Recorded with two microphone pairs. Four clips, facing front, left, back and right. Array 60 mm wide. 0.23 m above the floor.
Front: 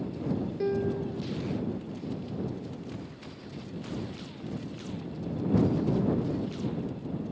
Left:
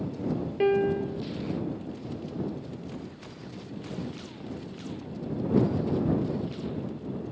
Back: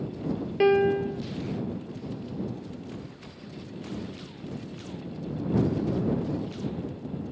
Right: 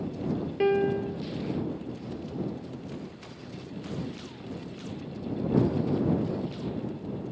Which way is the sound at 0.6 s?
Straight behind.